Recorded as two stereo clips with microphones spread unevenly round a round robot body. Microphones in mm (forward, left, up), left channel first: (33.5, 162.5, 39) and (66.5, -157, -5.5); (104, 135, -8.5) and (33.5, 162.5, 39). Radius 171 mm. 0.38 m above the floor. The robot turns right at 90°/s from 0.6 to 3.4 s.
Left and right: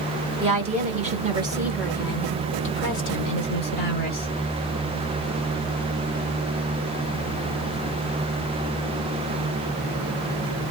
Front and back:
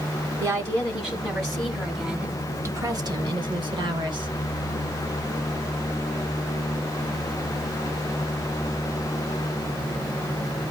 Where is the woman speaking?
115° right, 1.5 m; by 4.3 s 140° left, 1.5 m.